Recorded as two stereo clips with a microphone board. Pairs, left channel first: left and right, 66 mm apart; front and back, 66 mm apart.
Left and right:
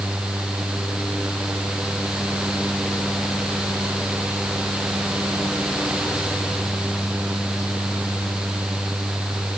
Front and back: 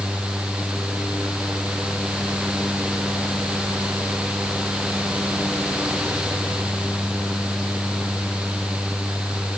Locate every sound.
Only background noise.